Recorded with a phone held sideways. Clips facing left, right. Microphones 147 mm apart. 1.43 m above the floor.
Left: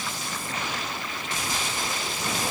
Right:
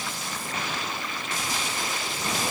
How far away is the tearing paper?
I don't hear tearing paper.